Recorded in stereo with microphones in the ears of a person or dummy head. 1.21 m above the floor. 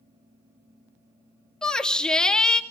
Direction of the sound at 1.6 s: 5° left (ahead or behind).